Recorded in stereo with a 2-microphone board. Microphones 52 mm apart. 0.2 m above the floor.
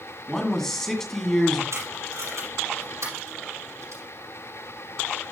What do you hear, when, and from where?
0.3 s a man speaking: 10° left (ahead or behind), 1.9 m
1.7 s tape being pulled: 75° right (ahead or behind), 5.5 m